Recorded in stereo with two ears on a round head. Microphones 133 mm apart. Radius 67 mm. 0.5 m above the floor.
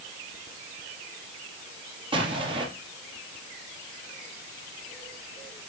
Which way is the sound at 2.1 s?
35° right (ahead or behind).